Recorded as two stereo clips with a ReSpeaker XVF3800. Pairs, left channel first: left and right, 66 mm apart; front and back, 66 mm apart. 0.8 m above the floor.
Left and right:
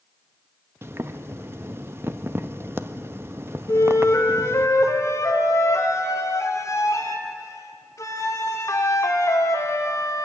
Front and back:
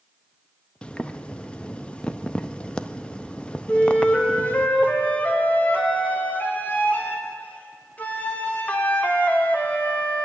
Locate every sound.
0.8 s boiling: 65° right, 0.8 m
3.7 s a flute: 60° left, 2 m